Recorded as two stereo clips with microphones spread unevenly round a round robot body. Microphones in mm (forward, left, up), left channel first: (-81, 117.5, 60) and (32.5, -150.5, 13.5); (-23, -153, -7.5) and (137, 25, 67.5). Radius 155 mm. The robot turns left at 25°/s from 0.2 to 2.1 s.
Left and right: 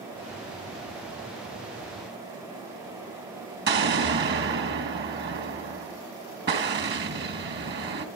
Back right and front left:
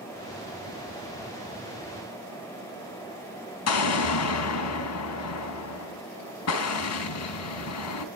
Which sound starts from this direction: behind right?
An explosion, at 3.7 s.